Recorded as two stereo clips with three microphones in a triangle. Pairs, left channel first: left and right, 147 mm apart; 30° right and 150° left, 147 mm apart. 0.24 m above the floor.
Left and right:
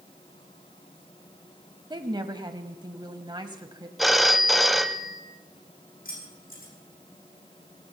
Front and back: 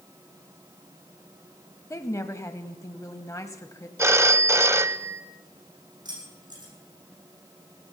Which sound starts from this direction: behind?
A phone ringing, at 4.0 s.